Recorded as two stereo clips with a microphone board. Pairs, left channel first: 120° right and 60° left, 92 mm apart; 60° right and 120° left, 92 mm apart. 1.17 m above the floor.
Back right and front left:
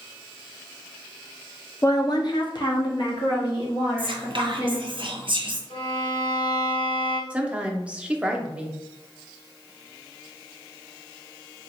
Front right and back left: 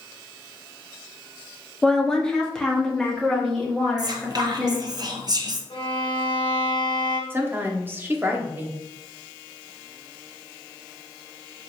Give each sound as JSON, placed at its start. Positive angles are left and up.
{"t": 1.8, "sound": "a woman speaking", "azimuth_deg": -135, "distance_m": 0.5}
{"t": 4.0, "sound": "whispering", "azimuth_deg": 80, "distance_m": 0.8}
{"t": 5.7, "sound": "a violin", "azimuth_deg": -90, "distance_m": 0.8}
{"t": 7.3, "sound": "a woman speaking", "azimuth_deg": 115, "distance_m": 0.6}